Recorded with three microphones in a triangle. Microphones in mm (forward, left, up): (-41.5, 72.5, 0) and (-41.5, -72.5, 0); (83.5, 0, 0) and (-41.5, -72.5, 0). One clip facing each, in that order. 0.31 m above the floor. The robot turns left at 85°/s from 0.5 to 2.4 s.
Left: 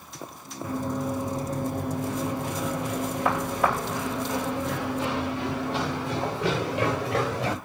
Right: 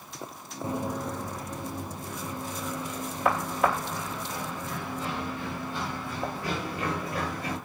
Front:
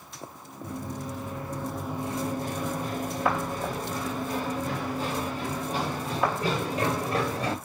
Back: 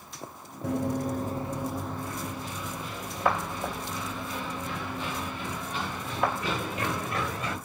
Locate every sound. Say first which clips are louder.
0.6 s running footsteps: left 3 dB, back 7 dB; 155° right, 2.0 m; by 7.5 s 85° left, 6 m